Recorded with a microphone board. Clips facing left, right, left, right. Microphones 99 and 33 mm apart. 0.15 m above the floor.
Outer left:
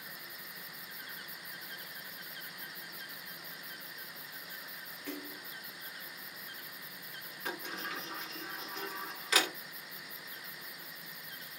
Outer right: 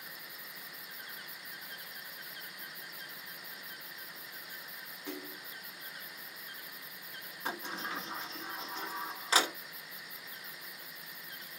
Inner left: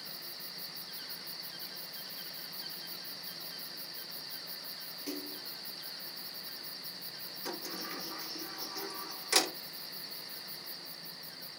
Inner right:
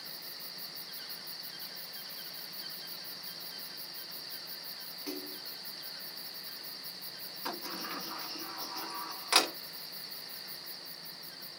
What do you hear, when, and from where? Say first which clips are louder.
5.1 s a splash: even, even; 20° right (ahead or behind), 1.7 m
7.5 s a sliding door: outer right 2 dB, inner right 2 dB; 30° right (ahead or behind), 1.1 m